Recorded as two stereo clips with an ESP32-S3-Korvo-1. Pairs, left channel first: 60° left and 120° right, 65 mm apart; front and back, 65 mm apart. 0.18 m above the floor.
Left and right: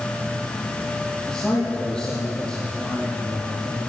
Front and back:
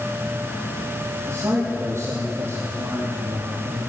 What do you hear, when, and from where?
1.3 s a man speaking: 135° left, 7 m